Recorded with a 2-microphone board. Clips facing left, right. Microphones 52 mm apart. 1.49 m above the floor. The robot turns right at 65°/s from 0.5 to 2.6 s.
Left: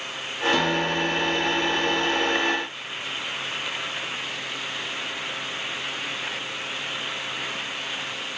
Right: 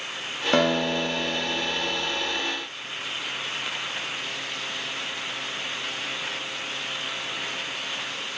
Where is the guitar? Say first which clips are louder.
Right 3 dB; 130° right, 0.5 m; by 2.0 s 30° right, 0.5 m.